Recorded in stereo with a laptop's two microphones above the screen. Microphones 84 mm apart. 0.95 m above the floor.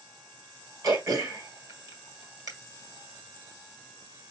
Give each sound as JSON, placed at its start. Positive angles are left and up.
{"t": 0.8, "sound": "throat clearing", "side_deg": -45, "distance_m": 1.5}